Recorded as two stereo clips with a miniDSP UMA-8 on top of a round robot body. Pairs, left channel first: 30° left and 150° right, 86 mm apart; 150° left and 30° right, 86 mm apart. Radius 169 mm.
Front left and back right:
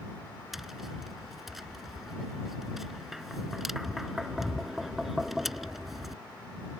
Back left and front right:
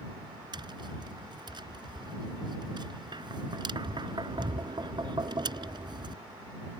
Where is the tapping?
65° right.